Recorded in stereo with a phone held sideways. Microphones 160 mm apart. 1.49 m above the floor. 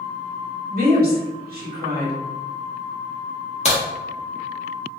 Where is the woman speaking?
65° right (ahead or behind), 1.5 m.